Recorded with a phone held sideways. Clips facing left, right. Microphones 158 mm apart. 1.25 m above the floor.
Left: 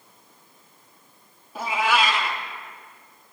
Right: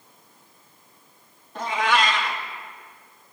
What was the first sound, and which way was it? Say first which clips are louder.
A cat meowing: even; 5° left (ahead or behind).